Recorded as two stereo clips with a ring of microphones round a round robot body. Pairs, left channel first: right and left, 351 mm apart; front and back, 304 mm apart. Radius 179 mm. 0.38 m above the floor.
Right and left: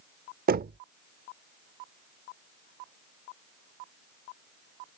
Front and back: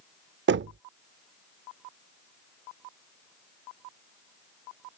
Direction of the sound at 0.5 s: 145° left.